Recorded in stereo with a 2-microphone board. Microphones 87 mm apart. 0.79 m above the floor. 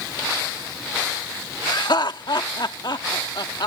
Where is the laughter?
60° left (ahead or behind).